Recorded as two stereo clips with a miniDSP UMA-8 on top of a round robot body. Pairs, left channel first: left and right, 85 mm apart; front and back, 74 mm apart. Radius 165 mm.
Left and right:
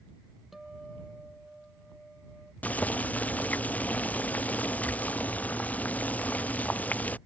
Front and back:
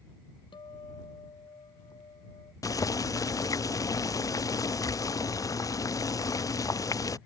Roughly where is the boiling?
Ahead.